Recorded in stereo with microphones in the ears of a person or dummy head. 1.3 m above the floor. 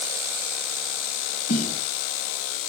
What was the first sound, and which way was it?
A snare drum, 45° left (ahead or behind).